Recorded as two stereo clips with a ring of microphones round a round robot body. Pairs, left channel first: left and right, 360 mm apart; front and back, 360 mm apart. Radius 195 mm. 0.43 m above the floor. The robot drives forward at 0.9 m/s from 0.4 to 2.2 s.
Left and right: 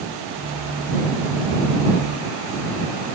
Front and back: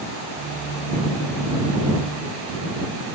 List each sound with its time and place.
Only background noise.